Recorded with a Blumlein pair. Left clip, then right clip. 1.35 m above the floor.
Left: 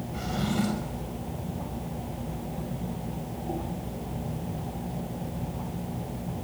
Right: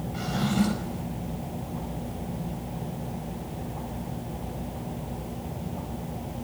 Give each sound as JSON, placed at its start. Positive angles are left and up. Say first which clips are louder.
{"t": 0.1, "sound": "a drawer", "louder": "right 2 dB", "azimuth_deg": -5, "distance_m": 4.5}